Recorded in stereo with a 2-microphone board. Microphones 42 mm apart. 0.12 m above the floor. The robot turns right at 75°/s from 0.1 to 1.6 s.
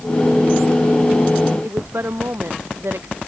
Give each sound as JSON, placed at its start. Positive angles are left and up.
{"t": 1.6, "sound": "a woman speaking", "side_deg": -75}